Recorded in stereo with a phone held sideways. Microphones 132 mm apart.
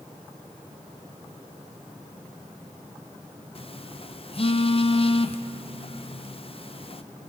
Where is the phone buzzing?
45° left (ahead or behind), 0.6 m.